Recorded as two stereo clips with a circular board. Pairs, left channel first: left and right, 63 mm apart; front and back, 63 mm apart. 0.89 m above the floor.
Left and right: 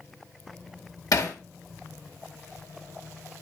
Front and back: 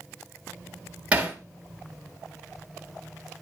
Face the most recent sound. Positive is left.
turn(degrees=110)